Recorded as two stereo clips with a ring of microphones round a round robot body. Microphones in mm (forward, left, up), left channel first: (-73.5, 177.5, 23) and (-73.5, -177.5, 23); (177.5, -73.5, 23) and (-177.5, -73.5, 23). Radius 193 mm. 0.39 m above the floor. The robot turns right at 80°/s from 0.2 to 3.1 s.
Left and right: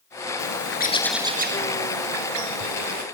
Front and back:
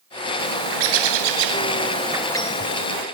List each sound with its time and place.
0.4 s a bird: 120° left, 1.8 m; by 3.0 s 25° right, 1.8 m